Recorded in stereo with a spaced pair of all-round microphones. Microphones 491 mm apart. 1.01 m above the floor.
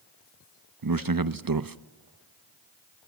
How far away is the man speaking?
About 0.7 m.